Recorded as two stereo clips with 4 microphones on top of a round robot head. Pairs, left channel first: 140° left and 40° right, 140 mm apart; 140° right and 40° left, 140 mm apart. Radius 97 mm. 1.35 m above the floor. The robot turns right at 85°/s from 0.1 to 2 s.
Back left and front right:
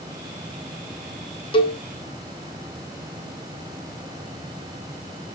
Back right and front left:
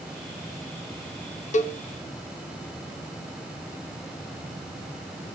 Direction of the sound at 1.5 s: 170° right.